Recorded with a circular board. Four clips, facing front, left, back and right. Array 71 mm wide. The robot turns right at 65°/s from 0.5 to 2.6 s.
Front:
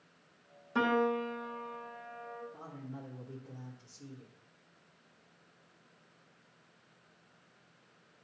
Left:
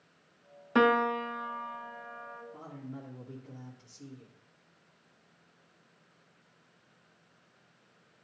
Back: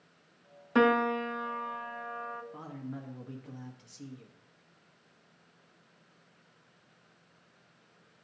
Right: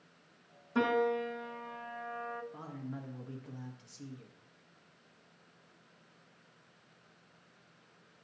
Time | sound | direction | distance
0.8 | a piano | 120° left | 0.6 m
2.5 | a man speaking | 150° right | 1.2 m